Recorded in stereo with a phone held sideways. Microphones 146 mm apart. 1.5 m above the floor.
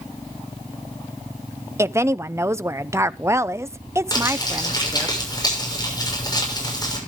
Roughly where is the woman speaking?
Centre.